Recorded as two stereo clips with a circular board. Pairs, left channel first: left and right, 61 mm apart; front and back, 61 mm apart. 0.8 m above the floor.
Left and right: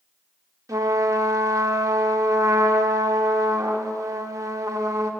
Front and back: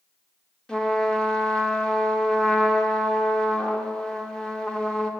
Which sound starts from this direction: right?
A trumpet, at 0.7 s.